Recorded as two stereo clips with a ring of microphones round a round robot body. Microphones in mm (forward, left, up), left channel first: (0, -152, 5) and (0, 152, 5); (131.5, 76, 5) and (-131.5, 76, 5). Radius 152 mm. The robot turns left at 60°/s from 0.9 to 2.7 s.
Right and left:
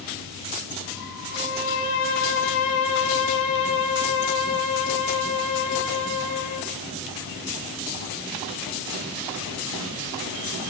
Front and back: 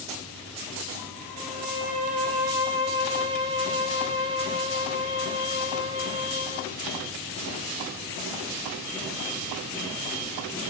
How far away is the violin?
About 3.5 m.